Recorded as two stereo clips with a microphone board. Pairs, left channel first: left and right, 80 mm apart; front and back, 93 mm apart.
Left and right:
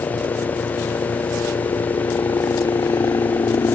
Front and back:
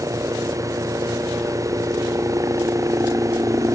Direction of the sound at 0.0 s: 125° left.